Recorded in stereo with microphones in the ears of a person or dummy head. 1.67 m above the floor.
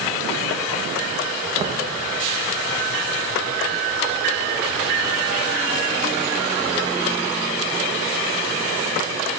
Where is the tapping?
30° right (ahead or behind), 1.3 m.